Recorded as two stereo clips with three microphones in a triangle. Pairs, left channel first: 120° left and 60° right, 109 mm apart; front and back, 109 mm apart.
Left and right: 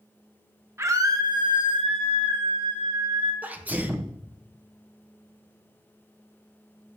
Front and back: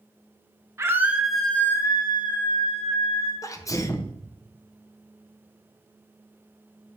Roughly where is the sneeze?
Ahead.